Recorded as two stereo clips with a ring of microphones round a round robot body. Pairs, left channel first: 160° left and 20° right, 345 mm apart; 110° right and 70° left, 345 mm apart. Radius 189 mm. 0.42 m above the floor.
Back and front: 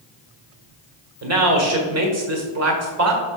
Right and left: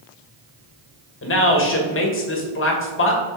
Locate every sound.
1.2 s a man speaking: 60° right, 1.5 m